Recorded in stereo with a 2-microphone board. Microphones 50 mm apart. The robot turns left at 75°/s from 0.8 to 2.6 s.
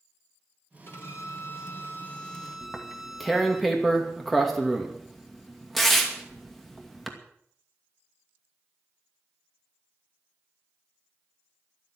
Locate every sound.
0.9 s a violin: 130° left, 2 m; by 3.6 s straight ahead, 2 m
2.6 s tearing paper: 5° left (ahead or behind), 2.5 m